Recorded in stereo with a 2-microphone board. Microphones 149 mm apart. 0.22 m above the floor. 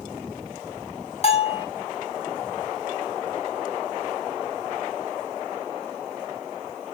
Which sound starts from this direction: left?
A bell, at 1.2 s.